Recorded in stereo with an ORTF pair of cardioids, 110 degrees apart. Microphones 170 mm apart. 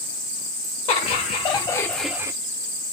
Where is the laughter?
40° left, 1.0 m; by 2.3 s 20° right, 0.5 m.